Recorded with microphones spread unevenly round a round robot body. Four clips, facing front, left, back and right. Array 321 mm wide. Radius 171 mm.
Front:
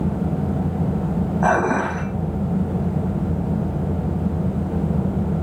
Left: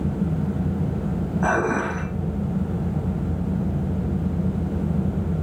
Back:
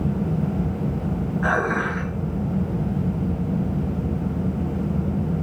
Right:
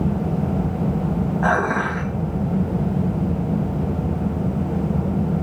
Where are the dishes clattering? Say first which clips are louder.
Right 1 dB, front 4 dB; 20° right, 3 m.